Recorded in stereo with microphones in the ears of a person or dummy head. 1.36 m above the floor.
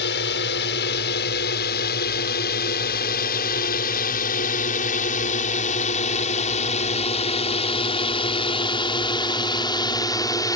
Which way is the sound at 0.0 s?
55° left (ahead or behind).